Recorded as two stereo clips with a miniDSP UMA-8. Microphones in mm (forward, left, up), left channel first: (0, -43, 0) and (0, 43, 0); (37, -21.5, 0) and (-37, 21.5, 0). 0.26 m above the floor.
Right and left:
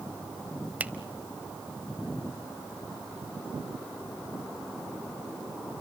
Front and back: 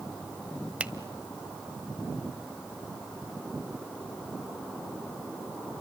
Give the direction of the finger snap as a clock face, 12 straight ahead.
8 o'clock.